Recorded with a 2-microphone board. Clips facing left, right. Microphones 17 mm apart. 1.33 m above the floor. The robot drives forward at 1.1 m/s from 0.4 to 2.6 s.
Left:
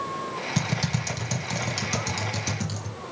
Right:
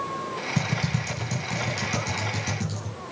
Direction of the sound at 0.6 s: 30° left (ahead or behind).